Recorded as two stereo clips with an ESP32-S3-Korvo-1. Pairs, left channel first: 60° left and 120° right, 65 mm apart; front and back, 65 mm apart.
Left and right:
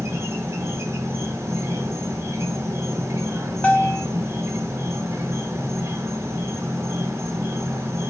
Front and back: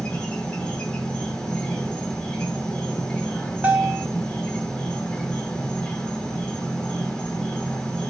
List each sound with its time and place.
0.0 s an insect: 75° right, 1.6 m
3.6 s a bell: 120° left, 1.3 m